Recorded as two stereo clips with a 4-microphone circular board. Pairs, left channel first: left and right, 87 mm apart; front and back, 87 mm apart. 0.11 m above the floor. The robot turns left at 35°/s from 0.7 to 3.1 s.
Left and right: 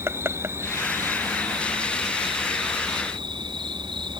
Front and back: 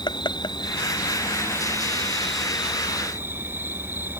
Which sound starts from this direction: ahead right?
An insect, at 0.0 s.